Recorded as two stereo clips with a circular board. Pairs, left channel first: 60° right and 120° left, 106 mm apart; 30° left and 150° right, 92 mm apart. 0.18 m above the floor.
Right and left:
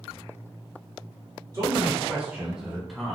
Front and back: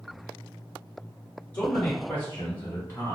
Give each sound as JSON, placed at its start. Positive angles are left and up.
{"t": 1.5, "sound": "a man speaking", "azimuth_deg": 95, "distance_m": 1.9}